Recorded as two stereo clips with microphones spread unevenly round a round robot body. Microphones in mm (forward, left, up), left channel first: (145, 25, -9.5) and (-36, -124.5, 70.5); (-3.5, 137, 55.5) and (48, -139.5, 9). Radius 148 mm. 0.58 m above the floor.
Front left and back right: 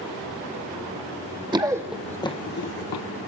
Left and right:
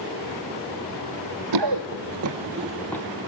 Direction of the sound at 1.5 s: 80° right.